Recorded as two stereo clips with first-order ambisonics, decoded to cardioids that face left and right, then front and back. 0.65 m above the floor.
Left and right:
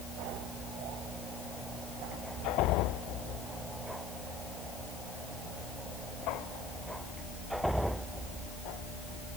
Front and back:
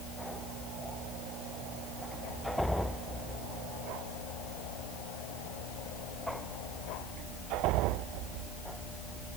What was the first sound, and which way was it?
Only background noise.